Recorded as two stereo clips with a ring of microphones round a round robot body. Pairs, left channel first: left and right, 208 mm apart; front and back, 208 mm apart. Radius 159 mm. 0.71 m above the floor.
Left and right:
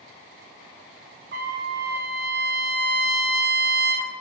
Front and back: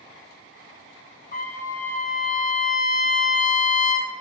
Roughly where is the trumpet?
Ahead right.